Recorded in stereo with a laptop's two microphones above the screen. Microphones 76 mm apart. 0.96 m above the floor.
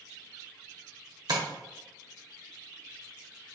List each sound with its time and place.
1.3 s tapping: 65° right (ahead or behind), 1.1 m